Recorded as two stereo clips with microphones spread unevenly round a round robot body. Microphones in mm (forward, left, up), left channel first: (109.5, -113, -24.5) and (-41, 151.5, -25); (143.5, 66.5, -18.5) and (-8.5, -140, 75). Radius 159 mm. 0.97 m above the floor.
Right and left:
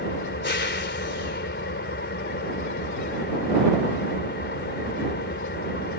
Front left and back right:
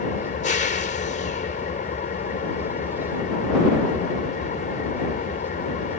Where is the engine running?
5° right.